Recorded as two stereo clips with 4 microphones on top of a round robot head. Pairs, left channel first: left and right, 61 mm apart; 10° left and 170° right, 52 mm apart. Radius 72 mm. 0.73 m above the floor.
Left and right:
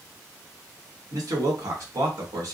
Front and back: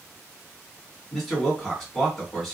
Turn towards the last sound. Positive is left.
turn(degrees=-75)